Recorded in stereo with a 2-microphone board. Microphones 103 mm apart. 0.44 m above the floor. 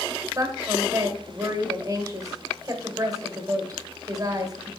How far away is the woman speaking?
About 1.4 m.